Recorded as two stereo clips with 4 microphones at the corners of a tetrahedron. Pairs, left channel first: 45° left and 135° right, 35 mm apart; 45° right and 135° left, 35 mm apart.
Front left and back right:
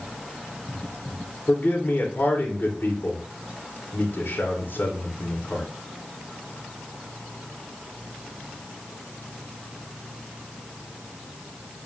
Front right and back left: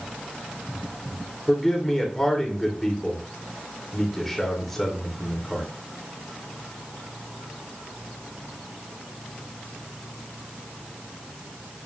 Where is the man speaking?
40° left, 2.5 m.